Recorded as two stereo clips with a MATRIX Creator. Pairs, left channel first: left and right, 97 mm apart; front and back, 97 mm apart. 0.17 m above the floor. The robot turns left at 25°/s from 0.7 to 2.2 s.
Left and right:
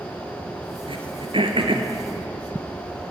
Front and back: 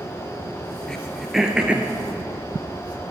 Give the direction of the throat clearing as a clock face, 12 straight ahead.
3 o'clock.